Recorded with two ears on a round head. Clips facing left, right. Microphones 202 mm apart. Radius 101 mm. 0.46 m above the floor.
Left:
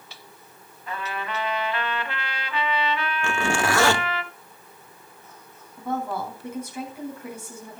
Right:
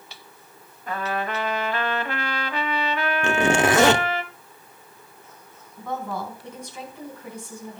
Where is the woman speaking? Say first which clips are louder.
Left 2 dB; 5° left (ahead or behind), 4.5 m.